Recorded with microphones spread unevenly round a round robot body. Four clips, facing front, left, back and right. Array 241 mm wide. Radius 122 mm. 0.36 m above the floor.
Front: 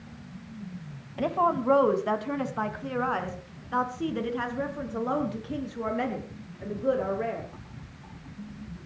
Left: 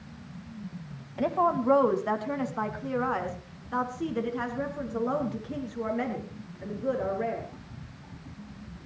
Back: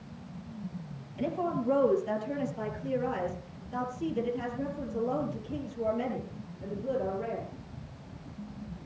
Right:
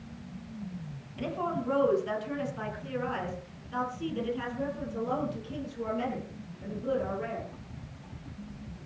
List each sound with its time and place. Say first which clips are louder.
1.2 s a woman speaking: left 7 dB, front 6 dB; 45° left, 2.5 m; by 7.5 s 35° left, 7.5 m